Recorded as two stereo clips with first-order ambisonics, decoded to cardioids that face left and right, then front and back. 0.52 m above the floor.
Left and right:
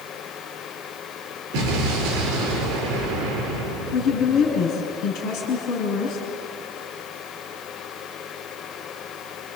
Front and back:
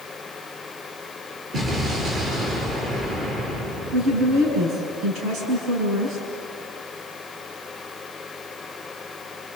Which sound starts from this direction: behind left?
A woman speaking, at 3.9 s.